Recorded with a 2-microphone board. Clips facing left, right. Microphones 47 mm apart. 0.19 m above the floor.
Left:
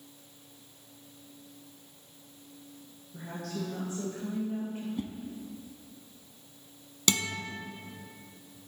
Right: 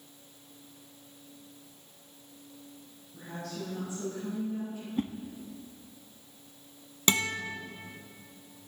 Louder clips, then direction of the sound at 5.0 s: Right 8 dB; 45° right (ahead or behind).